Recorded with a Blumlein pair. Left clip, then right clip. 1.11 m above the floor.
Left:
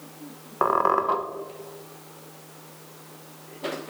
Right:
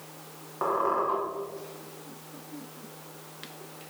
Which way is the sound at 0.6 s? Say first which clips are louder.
Left 5 dB; 60° left.